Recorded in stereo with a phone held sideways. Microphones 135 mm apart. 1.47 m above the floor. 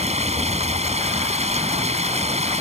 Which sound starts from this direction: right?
Running water, at 0.0 s.